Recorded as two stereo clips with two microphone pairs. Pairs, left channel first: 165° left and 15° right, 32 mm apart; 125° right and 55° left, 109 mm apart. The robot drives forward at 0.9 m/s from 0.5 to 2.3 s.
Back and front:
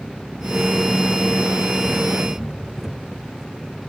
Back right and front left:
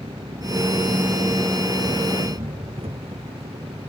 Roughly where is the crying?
I don't hear crying.